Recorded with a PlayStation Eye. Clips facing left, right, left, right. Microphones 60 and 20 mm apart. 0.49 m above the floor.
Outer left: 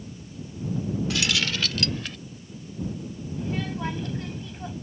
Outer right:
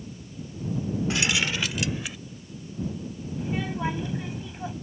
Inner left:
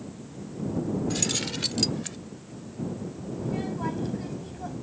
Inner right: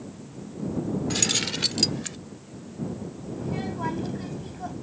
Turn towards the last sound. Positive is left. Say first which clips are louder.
# outer right 1 dB, even
turn(degrees=-15)  # may be behind; listen again after turning